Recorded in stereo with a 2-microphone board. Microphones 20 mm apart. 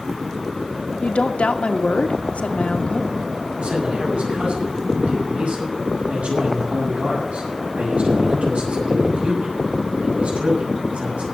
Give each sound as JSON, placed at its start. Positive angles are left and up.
{"t": 1.0, "sound": "a woman speaking", "side_deg": 75, "distance_m": 1.4}
{"t": 3.6, "sound": "a man speaking", "side_deg": -80, "distance_m": 7.0}